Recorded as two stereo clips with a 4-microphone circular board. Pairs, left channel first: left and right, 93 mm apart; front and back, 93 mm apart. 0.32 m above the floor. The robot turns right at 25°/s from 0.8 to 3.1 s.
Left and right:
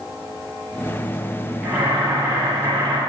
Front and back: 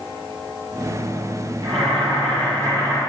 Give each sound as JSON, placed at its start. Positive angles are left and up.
{"t": 1.6, "sound": "boiling", "azimuth_deg": -165, "distance_m": 9.0}